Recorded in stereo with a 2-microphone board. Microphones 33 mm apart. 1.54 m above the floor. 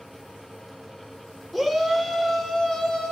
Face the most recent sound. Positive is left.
turn(degrees=20)  # may be behind; listen again after turning